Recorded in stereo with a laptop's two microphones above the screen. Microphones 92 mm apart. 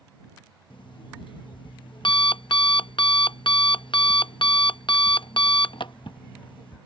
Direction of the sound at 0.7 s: 70° left (ahead or behind).